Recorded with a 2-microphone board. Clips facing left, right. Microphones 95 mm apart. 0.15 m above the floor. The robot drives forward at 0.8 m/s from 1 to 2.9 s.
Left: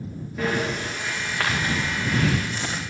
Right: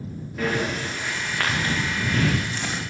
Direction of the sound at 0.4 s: 5° left (ahead or behind).